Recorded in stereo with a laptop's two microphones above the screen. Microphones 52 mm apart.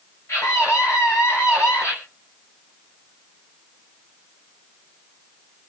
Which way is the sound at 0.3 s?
70° left (ahead or behind).